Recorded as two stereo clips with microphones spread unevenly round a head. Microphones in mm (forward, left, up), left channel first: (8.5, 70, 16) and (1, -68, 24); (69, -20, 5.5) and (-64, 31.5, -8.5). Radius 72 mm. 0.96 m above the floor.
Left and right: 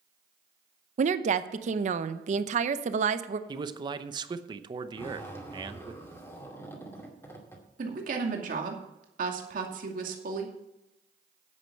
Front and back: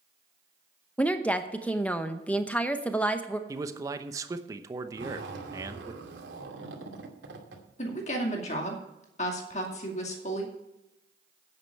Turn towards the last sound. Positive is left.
turn(degrees=-65)